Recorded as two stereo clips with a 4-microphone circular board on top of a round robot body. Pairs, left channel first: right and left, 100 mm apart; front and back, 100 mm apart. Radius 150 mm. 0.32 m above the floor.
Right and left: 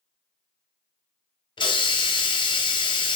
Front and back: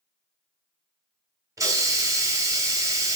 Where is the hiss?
125° right, 0.6 m.